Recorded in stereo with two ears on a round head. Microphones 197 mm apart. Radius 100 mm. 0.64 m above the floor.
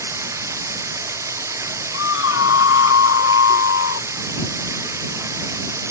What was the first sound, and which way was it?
Running water, 15° right (ahead or behind).